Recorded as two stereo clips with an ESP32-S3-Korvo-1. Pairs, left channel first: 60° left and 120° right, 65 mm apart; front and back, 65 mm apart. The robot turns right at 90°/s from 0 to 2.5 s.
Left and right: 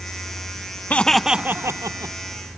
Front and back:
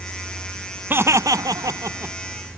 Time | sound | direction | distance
0.9 | laughter | 125° left | ?